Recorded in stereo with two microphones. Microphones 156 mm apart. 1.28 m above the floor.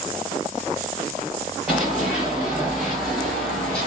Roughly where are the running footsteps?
Centre.